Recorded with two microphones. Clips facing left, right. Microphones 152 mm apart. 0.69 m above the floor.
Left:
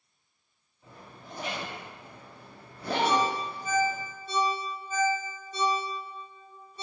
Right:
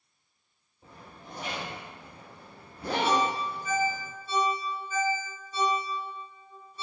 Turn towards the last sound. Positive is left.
turn(degrees=55)  # may be behind; listen again after turning